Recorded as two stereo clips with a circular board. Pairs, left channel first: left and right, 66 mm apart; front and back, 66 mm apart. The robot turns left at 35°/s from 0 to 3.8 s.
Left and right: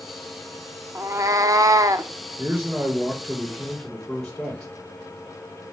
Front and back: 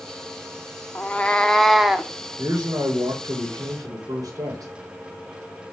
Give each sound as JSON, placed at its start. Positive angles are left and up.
{"t": 0.9, "sound": "a cat meowing", "azimuth_deg": -60, "distance_m": 0.7}
{"t": 2.4, "sound": "a man speaking", "azimuth_deg": -135, "distance_m": 2.5}